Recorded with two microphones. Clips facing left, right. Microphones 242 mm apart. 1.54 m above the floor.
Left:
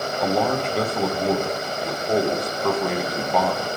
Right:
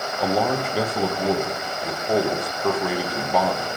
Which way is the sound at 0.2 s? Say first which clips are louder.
Even; 5° right (ahead or behind).